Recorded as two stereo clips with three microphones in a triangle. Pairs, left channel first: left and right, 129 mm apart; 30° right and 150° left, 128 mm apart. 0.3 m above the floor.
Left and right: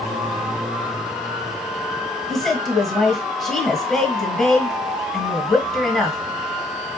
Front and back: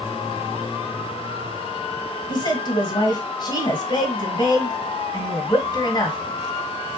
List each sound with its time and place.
2.3 s a woman speaking: 5° left, 1.3 m